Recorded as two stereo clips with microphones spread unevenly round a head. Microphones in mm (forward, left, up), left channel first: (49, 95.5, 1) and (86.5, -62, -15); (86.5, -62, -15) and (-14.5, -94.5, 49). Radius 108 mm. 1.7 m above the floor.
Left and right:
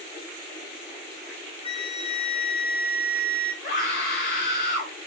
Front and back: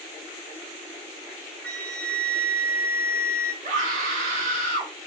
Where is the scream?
170° left, 4 m.